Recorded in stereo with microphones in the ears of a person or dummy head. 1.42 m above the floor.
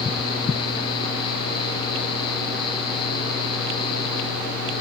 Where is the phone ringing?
No phone ringing in this recording.